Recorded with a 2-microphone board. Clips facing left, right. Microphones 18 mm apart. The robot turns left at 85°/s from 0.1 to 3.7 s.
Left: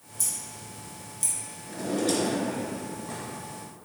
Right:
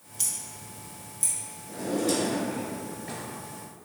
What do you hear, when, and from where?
0.2 s scissors: 50° right (ahead or behind), 1.1 m; by 1.3 s 45° left (ahead or behind), 1.1 m
1.7 s a drawer: 50° left, 1.4 m; by 3.2 s 85° right, 1.4 m